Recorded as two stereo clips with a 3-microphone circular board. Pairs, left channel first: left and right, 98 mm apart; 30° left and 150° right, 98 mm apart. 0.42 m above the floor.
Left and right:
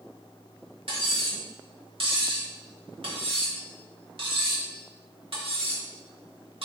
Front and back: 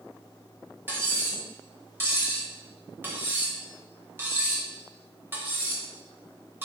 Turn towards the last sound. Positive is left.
turn(degrees=-80)